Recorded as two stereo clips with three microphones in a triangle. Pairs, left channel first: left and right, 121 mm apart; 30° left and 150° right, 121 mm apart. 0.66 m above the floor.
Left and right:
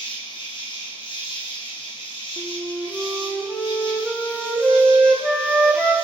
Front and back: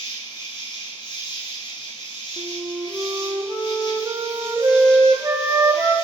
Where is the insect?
65° left, 3 m.